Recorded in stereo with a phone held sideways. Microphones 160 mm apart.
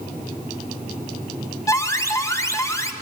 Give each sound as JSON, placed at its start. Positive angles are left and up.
{"t": 1.7, "sound": "an alarm", "side_deg": 20, "distance_m": 1.4}